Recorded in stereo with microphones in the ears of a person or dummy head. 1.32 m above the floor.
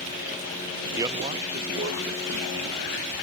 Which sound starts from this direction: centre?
A man speaking, at 1.0 s.